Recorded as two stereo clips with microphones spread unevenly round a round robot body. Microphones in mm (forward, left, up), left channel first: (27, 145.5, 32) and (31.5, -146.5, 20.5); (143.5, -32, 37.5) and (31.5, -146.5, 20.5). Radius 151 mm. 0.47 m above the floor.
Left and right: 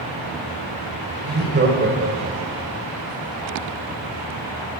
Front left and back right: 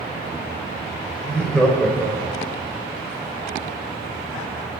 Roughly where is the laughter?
Ahead right.